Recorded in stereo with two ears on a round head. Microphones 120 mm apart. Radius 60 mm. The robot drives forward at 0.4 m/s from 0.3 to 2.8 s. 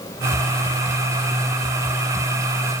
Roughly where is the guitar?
I don't hear a guitar.